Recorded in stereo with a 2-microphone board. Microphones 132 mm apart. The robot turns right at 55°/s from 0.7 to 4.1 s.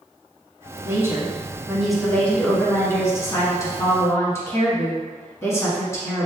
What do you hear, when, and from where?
0.8 s a woman speaking: 20° right (ahead or behind), 1.3 m; by 6.3 s 20° left (ahead or behind), 1.3 m